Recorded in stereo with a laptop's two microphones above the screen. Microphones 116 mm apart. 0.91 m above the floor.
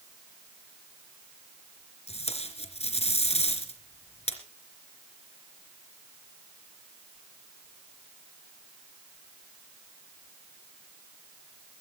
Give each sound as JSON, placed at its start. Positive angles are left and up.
{"t": 2.1, "sound": "tape being pulled", "side_deg": 65, "distance_m": 3.0}